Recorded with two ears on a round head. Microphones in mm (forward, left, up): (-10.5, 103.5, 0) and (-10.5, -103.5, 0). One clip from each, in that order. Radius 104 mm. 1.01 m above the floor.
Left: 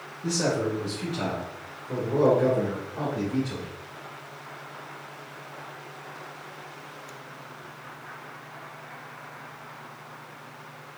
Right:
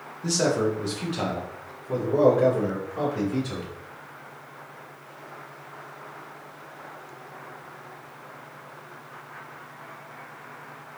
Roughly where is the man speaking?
Right.